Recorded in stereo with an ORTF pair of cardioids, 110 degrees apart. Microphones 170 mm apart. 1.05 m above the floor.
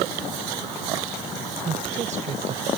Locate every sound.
1.6 s a woman speaking: 40° right; by 2.7 s 50° right